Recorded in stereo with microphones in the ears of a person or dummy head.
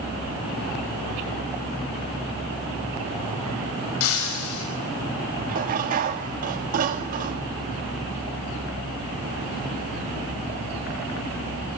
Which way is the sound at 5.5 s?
45° right (ahead or behind).